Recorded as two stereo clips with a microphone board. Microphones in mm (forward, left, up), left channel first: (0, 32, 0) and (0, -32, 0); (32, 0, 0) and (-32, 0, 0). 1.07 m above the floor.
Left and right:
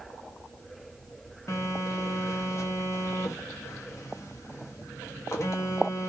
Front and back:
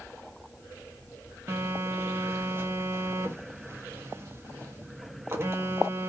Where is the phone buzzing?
130° left, 0.5 m.